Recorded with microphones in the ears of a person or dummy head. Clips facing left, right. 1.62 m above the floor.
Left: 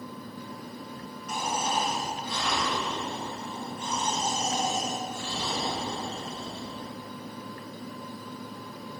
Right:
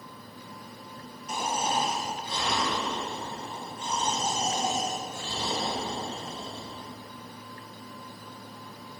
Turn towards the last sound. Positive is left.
turn(degrees=-25)  # may be behind; listen again after turning